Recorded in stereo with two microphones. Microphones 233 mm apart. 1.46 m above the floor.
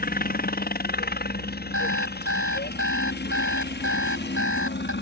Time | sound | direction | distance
0.0 | a helicopter | 40° left (ahead or behind) | ?
1.7 | an alarm clock | 75° right (ahead or behind) | ?